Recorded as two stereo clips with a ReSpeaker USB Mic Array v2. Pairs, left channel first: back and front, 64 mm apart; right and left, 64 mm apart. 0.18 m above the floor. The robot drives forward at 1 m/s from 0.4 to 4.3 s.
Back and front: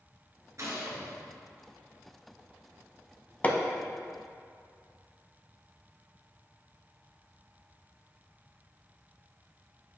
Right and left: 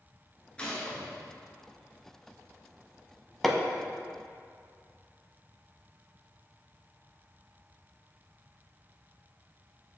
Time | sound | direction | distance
0.6 | a gunshot | 20° right | 1.9 m
3.4 | hammering | 170° right | 0.7 m